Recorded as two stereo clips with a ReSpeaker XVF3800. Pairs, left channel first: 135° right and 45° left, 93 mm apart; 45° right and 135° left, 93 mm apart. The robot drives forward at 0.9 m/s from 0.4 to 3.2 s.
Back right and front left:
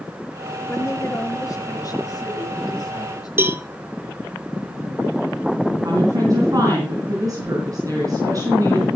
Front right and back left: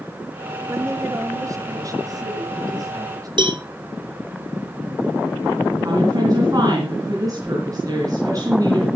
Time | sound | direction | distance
0.7 | a woman speaking | straight behind | 1.1 m
3.4 | a cowbell | 110° left | 1.2 m
5.8 | a woman speaking | 90° left | 3.5 m